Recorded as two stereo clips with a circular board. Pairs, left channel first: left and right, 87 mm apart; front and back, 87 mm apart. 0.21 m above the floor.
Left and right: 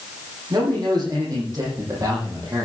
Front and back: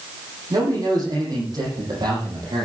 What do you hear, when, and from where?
0.5 s a man speaking: 135° right, 10 m; by 2.6 s 140° right, 9 m